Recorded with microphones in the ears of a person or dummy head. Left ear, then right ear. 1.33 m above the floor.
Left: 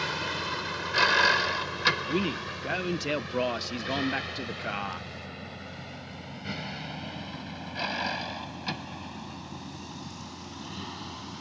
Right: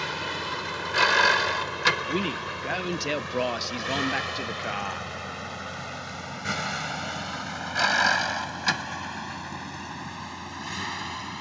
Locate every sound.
0.0 s a vehicle: 5° right (ahead or behind); by 11.4 s 65° right (ahead or behind)
2.1 s a man speaking: 15° right (ahead or behind)